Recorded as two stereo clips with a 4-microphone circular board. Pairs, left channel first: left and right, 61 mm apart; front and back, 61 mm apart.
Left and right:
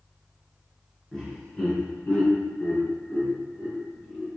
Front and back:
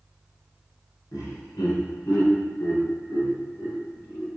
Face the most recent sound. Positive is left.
turn(degrees=45)